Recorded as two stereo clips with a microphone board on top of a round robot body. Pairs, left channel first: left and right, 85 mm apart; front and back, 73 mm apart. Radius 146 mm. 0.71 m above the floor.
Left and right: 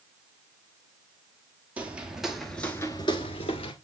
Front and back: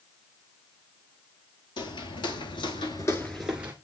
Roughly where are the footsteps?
Ahead.